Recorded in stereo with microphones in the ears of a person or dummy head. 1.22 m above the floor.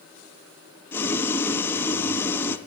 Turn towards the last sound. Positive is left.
turn(degrees=10)  # may be behind; listen again after turning